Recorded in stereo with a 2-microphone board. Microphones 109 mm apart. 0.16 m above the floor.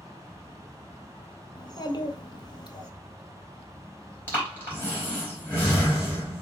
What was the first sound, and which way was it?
A child speaking, 40° left (ahead or behind).